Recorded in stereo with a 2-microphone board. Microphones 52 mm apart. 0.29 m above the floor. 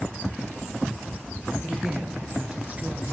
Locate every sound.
1.6 s a woman speaking: 20° right (ahead or behind), 5 m; by 3.1 s 30° right (ahead or behind), 4.5 m